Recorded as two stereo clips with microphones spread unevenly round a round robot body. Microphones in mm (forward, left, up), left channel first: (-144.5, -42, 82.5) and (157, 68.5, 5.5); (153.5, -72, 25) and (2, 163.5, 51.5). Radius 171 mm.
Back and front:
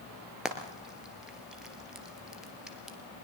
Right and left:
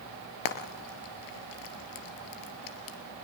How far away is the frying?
About 2.5 m.